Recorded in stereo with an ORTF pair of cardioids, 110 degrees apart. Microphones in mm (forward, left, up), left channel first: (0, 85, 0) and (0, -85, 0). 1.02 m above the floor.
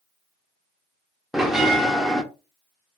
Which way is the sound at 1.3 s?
Straight ahead.